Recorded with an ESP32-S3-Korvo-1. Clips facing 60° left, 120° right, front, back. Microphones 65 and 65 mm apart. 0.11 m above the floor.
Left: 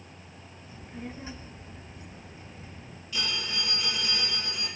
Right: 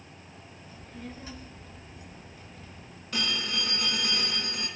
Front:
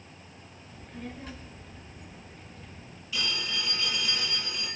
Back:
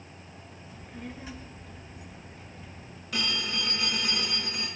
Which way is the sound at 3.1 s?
155° right.